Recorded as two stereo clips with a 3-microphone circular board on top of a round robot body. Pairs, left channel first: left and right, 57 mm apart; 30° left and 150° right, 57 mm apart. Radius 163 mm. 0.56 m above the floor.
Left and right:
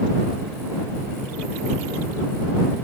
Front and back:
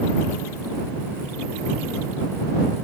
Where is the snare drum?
I don't hear a snare drum.